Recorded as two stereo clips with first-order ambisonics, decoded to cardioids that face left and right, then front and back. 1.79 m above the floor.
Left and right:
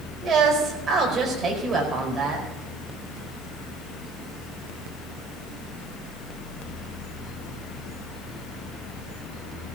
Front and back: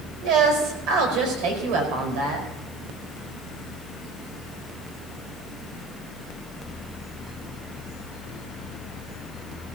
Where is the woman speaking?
160° right, 4.5 m; by 2.5 s straight behind, 4.5 m.